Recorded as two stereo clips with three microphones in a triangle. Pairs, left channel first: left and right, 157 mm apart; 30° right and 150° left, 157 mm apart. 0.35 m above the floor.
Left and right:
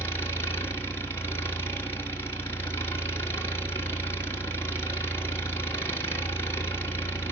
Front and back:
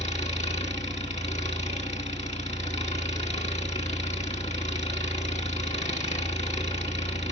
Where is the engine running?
15° left, 3 m.